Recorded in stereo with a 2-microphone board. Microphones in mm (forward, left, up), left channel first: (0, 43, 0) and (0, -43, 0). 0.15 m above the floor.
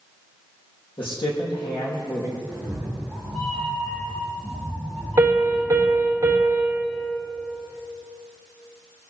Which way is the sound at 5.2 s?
35° right (ahead or behind).